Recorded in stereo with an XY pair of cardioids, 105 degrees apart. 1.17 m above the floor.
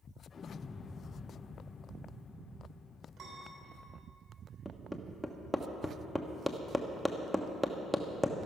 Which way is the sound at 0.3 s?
40° left.